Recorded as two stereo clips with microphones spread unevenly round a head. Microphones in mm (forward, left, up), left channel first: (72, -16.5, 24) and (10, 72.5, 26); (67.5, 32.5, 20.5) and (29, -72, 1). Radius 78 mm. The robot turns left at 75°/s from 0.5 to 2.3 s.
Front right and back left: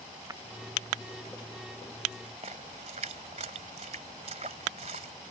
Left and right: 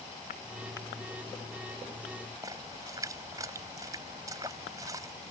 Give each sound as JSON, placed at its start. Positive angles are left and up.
{"t": 0.3, "sound": "breaking glass", "azimuth_deg": 65}
{"t": 2.4, "sound": "a splash", "azimuth_deg": 175}